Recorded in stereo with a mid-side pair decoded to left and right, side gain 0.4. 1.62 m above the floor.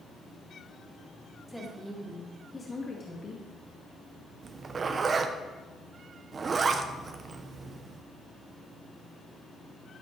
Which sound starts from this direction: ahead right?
A zipper, at 4.4 s.